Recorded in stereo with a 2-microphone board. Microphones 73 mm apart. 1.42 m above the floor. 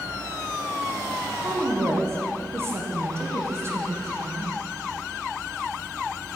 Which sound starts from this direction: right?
A woman speaking, at 1.4 s.